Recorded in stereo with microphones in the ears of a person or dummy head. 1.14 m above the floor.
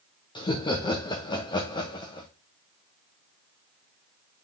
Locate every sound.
0.3 s laughter: 20° left (ahead or behind), 1.0 m